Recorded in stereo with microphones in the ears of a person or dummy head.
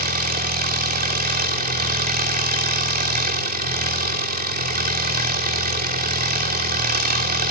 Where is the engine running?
45° right (ahead or behind), 3 m.